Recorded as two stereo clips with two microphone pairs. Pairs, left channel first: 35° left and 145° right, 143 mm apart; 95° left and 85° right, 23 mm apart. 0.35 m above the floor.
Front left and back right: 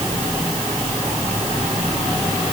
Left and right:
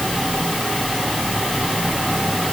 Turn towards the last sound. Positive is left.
No sound to turn to.